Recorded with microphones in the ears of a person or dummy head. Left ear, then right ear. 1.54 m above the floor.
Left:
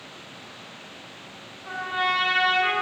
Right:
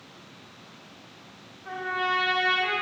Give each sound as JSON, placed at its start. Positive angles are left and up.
{"t": 1.6, "sound": "a trumpet", "side_deg": 30, "distance_m": 0.9}